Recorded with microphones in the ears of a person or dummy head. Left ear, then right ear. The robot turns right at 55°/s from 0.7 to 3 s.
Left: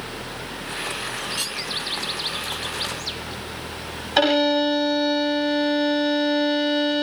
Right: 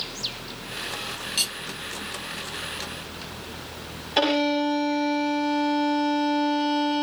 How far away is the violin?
About 0.9 m.